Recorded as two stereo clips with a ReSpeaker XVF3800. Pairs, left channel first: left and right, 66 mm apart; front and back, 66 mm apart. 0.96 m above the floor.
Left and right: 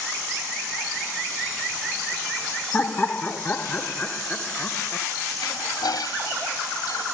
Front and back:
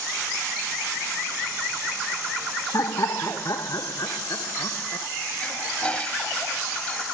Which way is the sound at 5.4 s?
75° left.